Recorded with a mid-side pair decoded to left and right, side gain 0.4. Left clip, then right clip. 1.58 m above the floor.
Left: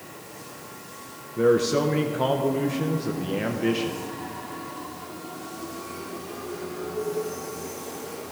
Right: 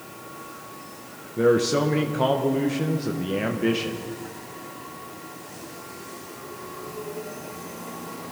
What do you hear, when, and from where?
1.4 s a man speaking: 10° right, 1.3 m